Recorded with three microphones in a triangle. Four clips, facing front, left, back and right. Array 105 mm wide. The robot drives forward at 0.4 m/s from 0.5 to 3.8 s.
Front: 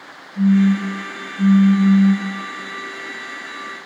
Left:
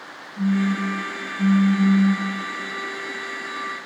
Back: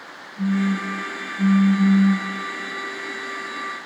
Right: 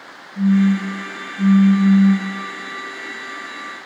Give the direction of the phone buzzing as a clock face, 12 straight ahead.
3 o'clock.